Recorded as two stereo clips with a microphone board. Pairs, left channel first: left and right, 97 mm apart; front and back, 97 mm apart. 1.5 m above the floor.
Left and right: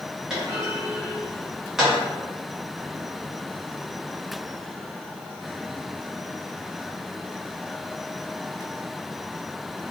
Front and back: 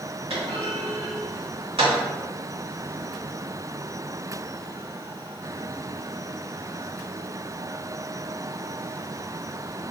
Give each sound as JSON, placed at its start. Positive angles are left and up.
{"t": 0.3, "sound": "a clunk", "azimuth_deg": -175, "distance_m": 1.2}